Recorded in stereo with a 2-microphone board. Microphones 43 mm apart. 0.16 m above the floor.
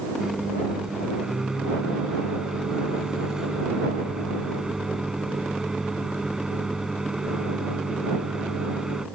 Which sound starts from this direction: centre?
A microwave, at 0.2 s.